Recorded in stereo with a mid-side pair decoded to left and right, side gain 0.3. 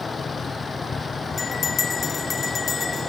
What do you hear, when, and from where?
0.0 s a vehicle: 55° left; by 3.1 s 50° left
1.4 s a bell: 60° left